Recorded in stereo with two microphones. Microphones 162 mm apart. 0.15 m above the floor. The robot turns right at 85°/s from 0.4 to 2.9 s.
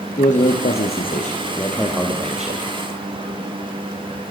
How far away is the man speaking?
About 4 m.